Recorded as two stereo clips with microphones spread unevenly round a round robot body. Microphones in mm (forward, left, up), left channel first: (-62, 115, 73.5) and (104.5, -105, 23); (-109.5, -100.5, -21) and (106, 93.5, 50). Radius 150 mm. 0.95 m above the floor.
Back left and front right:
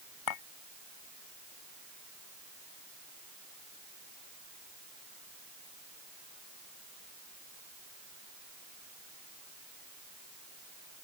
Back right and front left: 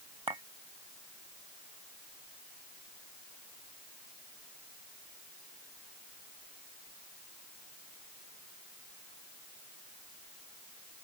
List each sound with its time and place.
0.3 s a clink: 120° left